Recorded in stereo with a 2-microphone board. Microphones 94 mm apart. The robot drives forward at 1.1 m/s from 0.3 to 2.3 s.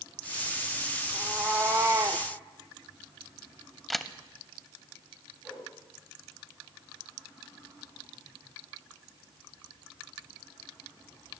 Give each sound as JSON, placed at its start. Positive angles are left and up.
{"t": 1.1, "sound": "a cat meowing", "side_deg": -20, "distance_m": 1.8}
{"t": 3.9, "sound": "a camera shutter", "side_deg": 0, "distance_m": 0.6}
{"t": 5.4, "sound": "a whoosh", "side_deg": -10, "distance_m": 7.0}